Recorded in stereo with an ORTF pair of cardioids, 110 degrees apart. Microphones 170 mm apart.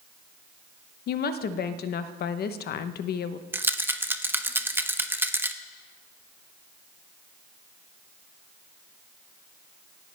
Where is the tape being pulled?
I don't hear tape being pulled.